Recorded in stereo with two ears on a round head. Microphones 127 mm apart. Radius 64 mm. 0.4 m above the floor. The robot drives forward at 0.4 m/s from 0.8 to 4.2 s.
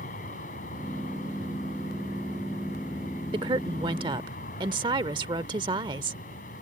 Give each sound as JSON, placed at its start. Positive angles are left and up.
{"t": 0.0, "sound": "an aircraft", "side_deg": 60}
{"t": 3.3, "sound": "a woman speaking", "side_deg": -35}